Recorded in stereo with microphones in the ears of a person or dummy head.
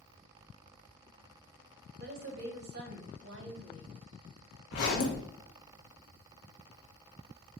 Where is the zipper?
50° left (ahead or behind), 1.1 m.